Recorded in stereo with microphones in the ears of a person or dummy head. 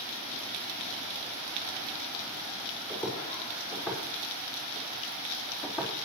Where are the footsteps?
15° left (ahead or behind), 5.5 m; by 6.0 s 20° left (ahead or behind), 4 m.